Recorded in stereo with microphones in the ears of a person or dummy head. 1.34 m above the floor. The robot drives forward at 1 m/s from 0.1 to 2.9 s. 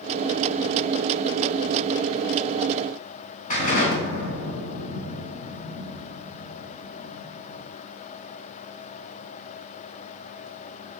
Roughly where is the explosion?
Left.